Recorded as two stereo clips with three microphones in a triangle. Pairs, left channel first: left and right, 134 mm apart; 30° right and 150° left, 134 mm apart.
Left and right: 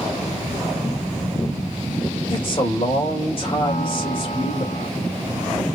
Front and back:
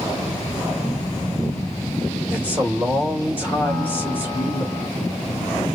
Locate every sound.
2.3 s a man speaking: 80° left, 1.5 m
3.6 s a piano: 55° left, 1.9 m